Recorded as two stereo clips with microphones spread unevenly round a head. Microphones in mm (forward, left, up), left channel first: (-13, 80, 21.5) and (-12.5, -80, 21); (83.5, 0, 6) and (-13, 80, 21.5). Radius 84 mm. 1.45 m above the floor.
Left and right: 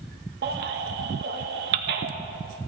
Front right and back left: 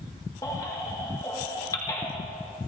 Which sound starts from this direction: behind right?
A baby crying, at 0.4 s.